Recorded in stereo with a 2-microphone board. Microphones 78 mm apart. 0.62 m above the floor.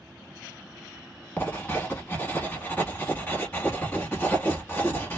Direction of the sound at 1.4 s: 20° left (ahead or behind).